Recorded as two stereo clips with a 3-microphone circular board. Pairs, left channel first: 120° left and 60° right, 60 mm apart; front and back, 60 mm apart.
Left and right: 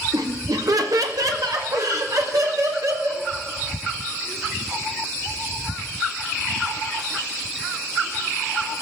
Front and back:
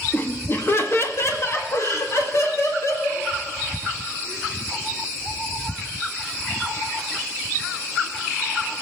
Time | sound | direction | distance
0.1 | laughter | 60° right | 1.0 m